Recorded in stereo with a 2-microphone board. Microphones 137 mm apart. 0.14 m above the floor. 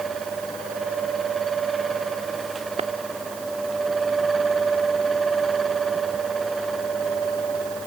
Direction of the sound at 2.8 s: 50° right (ahead or behind).